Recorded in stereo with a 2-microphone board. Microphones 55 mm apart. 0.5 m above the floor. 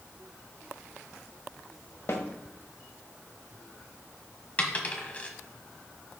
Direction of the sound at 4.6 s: 30° left (ahead or behind).